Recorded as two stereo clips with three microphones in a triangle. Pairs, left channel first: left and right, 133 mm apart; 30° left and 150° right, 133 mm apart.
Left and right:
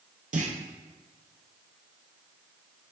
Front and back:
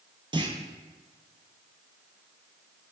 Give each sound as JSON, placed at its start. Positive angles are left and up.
{"t": 0.3, "sound": "a clunk", "azimuth_deg": -95, "distance_m": 0.5}